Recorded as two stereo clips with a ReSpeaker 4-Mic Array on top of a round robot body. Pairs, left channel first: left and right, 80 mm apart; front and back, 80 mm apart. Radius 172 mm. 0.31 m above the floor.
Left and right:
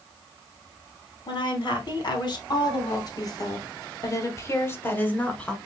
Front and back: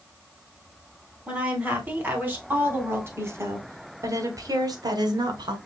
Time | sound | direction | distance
1.3 | a woman speaking | 105° left | 4 m